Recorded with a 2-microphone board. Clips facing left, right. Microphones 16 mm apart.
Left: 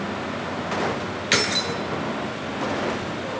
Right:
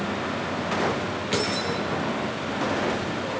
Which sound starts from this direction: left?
Keys jangling, at 1.3 s.